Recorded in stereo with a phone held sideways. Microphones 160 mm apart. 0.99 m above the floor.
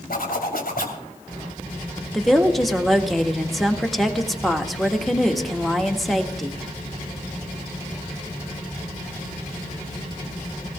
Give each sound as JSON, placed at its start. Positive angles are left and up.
{"t": 0.1, "sound": "a zipper", "side_deg": 75, "distance_m": 3.0}
{"t": 2.1, "sound": "a woman speaking", "side_deg": 0, "distance_m": 1.6}